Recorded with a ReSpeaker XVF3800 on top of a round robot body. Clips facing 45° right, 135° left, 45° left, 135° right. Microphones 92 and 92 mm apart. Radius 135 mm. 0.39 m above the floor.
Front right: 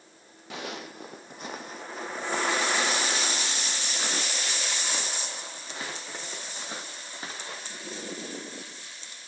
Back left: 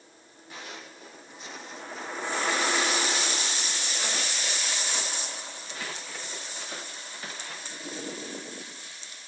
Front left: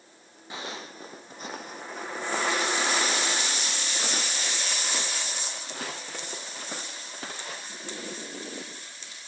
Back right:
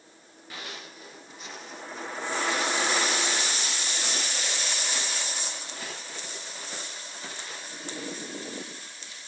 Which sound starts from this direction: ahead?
Footsteps, at 0.5 s.